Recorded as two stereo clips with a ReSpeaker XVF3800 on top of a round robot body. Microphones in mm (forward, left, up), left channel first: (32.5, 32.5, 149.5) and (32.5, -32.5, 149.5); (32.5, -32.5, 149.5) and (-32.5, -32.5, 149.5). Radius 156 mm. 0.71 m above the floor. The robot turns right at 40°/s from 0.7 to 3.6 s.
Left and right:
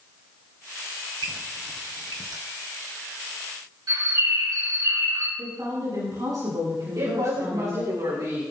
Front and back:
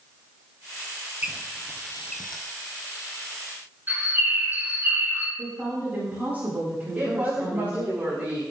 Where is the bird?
120° right, 8 m.